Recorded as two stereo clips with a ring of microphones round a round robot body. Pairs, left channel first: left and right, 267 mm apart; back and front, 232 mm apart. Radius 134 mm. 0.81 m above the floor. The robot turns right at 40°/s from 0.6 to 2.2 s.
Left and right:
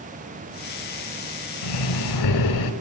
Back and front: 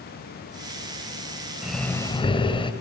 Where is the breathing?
85° left, 1.9 m; by 2.7 s 110° left, 1.9 m.